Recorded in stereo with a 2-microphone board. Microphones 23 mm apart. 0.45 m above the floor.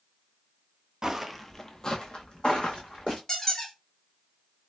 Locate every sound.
1.0 s footsteps: 30° right (ahead or behind), 0.5 m; by 3.2 s 50° left (ahead or behind), 2.0 m
3.3 s a squeak: 25° left (ahead or behind), 1.0 m